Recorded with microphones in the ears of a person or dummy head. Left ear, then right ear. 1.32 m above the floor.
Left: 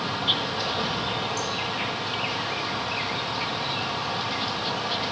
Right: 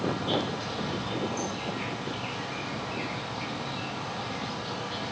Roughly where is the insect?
Left.